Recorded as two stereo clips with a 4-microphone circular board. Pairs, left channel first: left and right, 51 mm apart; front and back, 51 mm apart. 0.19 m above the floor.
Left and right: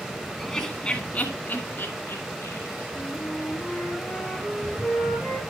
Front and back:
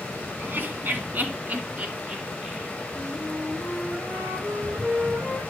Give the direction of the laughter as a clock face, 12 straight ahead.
6 o'clock.